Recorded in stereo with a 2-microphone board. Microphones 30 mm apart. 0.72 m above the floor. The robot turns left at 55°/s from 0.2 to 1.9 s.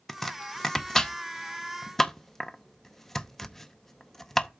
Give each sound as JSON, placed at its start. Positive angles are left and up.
{"t": 0.1, "sound": "chopping", "side_deg": 10, "distance_m": 0.7}